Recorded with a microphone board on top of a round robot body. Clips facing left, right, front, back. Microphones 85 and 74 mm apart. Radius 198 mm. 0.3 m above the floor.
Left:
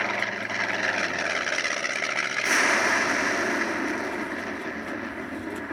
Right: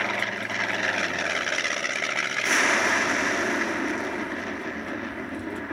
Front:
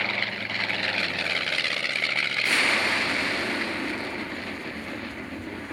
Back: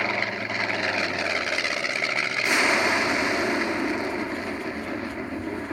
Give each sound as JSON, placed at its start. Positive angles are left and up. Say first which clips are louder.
{"t": 0.0, "sound": "an aircraft", "louder": "even, back 3 dB", "azimuth_deg": 175}